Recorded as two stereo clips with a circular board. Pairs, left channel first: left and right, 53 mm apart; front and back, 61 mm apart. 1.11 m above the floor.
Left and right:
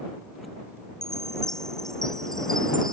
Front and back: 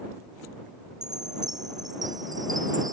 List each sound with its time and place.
1.0 s a chime: 170° left